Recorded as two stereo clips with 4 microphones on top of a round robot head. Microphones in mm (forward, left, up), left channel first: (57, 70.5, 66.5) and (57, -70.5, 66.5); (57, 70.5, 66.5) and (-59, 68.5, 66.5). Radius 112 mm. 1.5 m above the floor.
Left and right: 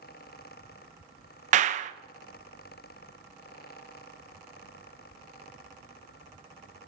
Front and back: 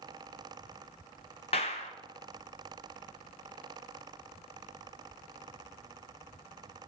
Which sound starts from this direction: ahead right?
A clap, at 1.5 s.